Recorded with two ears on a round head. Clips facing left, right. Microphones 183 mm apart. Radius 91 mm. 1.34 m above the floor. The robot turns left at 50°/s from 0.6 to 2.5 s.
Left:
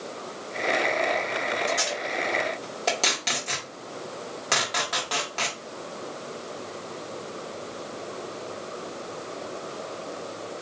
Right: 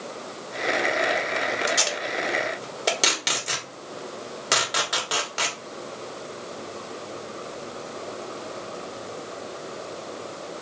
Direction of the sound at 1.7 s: 55° right (ahead or behind).